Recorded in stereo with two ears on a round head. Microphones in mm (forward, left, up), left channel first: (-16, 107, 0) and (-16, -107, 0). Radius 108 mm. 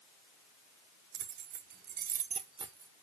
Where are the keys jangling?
45° right (ahead or behind), 1.0 m; by 2.9 s 15° right (ahead or behind), 1.0 m.